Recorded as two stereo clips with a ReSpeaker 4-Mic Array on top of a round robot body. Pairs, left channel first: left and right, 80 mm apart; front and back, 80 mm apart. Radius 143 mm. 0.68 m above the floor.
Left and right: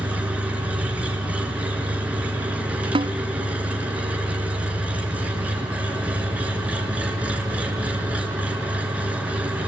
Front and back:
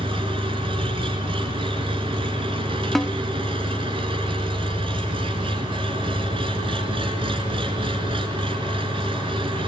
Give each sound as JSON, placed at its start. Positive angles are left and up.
{"t": 0.0, "sound": "an engine running", "azimuth_deg": -165, "distance_m": 3.0}
{"t": 3.0, "sound": "a snare drum", "azimuth_deg": -90, "distance_m": 0.8}